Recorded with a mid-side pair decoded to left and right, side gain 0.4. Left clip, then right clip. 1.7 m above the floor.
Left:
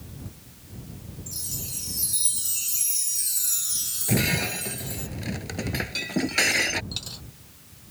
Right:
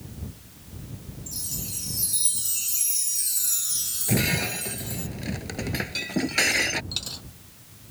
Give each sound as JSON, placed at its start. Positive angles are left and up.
{"t": 1.3, "sound": "a chime", "azimuth_deg": 5}
{"t": 4.1, "sound": "breaking glass", "azimuth_deg": 5}
{"t": 6.9, "sound": "a dropped coin", "azimuth_deg": -20}